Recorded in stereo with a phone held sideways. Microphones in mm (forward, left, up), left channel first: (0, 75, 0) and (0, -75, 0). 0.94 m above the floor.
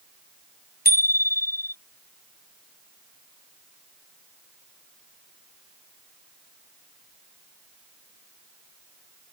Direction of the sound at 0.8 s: 85° left.